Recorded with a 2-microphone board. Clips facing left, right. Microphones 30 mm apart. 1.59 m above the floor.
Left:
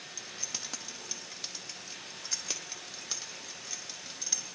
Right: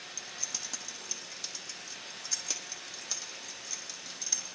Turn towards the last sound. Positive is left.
turn(degrees=20)  # may be behind; listen again after turning